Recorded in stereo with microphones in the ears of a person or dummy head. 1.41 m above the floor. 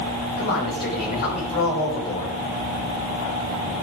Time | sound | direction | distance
0.4 | a man speaking | 45° left (ahead or behind) | 6 m